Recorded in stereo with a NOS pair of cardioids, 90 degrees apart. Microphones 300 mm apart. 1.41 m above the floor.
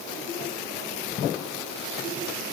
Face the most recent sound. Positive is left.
No sound to turn to.